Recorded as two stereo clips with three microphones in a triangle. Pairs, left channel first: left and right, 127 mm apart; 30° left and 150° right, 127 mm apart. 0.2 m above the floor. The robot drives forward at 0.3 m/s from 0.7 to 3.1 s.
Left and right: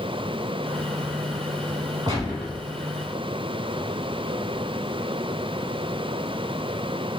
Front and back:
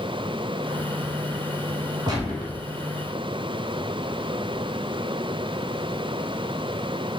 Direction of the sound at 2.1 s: 125° right.